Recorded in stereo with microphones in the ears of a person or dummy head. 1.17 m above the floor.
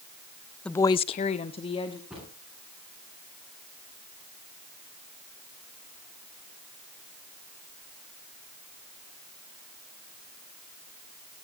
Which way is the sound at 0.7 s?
10° left (ahead or behind).